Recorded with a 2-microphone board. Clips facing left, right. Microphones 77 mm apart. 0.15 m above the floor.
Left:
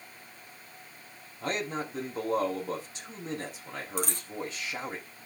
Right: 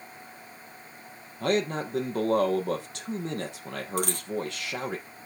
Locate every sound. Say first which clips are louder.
1.4 s a man speaking: right 6 dB; 70° right (ahead or behind), 4 m
4.0 s a dropped coin: right 4 dB; 60° right (ahead or behind), 1.8 m